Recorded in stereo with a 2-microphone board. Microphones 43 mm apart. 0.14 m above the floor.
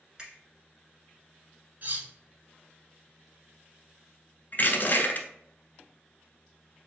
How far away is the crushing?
About 1.1 m.